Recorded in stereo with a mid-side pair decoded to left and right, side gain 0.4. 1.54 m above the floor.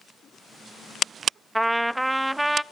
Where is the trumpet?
10° right, 0.5 m.